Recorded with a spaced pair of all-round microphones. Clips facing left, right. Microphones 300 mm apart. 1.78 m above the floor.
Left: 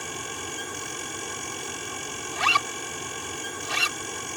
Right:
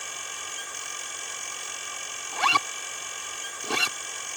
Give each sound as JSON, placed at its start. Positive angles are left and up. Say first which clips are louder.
{"t": 0.0, "sound": "a fan", "louder": "left 11 dB", "side_deg": 65}
{"t": 2.3, "sound": "a zipper", "louder": "right 2 dB", "side_deg": -60}